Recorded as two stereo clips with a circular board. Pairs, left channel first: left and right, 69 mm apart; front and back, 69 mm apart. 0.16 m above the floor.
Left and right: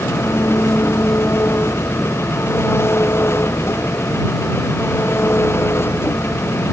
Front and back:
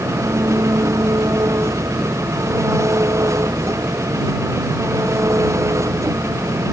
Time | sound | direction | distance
0.0 | an engine running | 140° left | ?